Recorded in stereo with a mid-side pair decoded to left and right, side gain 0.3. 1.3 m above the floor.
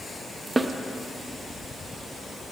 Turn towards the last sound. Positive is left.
turn(degrees=-35)